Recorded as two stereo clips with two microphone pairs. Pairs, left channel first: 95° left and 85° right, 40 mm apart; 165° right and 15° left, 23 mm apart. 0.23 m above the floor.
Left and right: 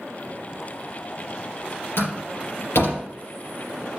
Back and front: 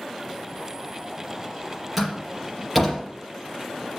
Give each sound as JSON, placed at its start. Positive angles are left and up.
{"t": 2.0, "sound": "a door slam", "azimuth_deg": 95, "distance_m": 5.0}